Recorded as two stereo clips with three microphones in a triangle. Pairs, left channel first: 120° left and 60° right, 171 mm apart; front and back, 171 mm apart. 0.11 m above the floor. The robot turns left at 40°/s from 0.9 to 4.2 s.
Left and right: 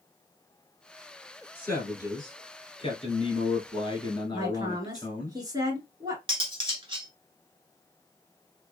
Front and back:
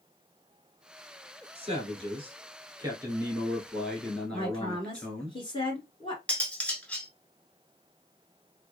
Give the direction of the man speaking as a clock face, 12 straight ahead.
6 o'clock.